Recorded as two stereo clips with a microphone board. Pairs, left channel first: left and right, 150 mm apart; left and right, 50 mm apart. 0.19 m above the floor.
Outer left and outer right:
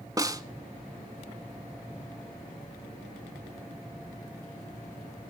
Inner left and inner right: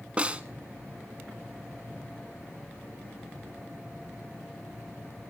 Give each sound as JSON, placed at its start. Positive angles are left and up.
{"t": 0.2, "sound": "a snare drum", "side_deg": -25, "distance_m": 0.6}